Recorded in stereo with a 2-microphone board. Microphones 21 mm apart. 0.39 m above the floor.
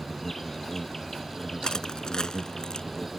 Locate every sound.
0.0 s an insect: 15° left (ahead or behind)
1.6 s crushing: 35° left (ahead or behind)